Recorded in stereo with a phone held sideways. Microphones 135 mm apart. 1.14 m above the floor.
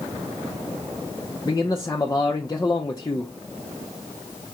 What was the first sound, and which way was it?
A man speaking, 30° left (ahead or behind).